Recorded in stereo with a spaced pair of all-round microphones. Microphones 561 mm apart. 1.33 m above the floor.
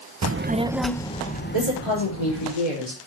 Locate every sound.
0.2 s a child speaking: 35° right (ahead or behind), 0.5 m; by 2.5 s 35° left (ahead or behind), 1.5 m
1.5 s a woman speaking: 55° left (ahead or behind), 5 m